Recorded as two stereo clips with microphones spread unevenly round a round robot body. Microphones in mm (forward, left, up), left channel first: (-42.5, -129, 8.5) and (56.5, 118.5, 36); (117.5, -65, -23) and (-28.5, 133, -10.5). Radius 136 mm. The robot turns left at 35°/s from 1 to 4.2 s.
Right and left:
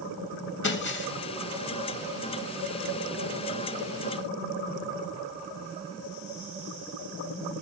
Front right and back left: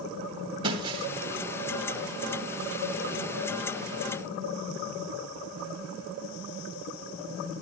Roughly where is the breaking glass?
Behind.